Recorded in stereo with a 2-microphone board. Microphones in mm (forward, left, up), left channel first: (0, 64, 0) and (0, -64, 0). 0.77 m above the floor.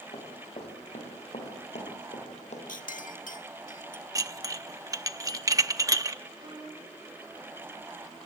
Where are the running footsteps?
50° left (ahead or behind), 7 m; by 2.6 s 60° left (ahead or behind), 8 m.